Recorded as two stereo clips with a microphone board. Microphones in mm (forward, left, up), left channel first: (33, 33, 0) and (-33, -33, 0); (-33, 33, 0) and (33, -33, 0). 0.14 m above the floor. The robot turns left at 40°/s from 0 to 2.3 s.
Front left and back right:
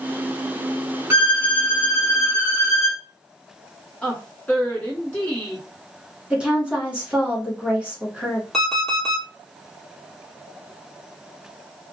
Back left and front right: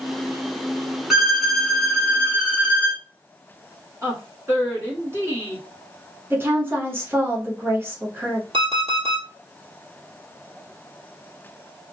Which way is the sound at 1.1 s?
130° right.